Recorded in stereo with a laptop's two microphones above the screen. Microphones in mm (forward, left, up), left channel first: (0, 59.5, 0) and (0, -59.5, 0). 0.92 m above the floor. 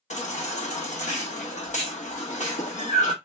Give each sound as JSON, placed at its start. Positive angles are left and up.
{"t": 0.1, "sound": "a baby crying", "side_deg": 80, "distance_m": 1.1}